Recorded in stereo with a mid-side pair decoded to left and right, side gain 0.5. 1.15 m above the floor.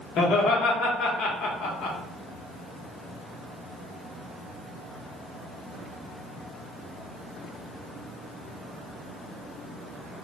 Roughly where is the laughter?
Ahead left.